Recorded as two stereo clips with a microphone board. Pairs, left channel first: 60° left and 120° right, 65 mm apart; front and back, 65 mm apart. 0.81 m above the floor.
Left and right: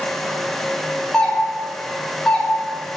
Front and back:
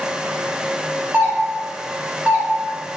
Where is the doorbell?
135° left, 1.4 m.